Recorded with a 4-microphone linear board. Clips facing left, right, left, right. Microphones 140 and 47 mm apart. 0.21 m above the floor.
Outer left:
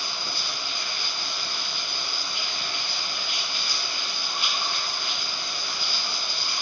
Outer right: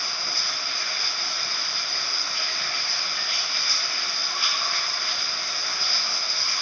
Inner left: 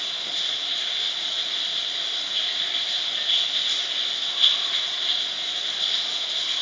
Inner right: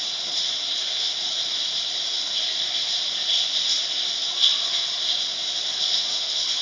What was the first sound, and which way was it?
Running water, 20° left (ahead or behind).